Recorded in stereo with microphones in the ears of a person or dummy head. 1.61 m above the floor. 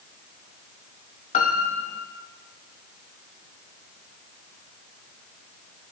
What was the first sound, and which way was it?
A piano, 35° left (ahead or behind).